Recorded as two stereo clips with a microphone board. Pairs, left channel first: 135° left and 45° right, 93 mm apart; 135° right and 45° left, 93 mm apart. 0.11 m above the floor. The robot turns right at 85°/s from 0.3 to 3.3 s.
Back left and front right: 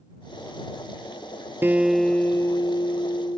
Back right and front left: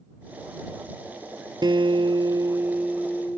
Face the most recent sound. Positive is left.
turn(degrees=160)